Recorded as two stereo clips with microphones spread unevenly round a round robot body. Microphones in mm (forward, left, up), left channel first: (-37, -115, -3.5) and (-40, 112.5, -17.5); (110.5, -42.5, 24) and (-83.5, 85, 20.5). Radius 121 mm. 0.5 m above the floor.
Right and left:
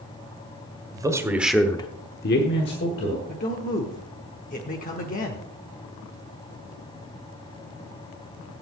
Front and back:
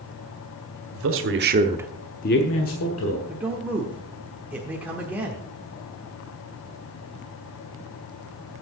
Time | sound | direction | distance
0.9 | a man speaking | 165° left | 1.7 m
3.3 | a man speaking | 135° right | 1.1 m